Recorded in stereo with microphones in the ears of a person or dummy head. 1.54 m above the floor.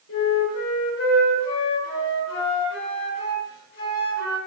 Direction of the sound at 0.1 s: 65° left (ahead or behind).